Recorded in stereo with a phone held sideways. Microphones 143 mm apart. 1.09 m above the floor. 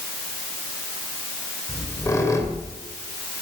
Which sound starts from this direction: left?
A squeak, at 1.7 s.